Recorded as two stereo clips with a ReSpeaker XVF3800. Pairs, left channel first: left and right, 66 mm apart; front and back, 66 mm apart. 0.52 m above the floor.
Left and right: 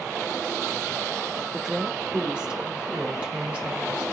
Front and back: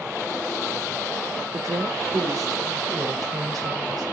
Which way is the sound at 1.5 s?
170° right.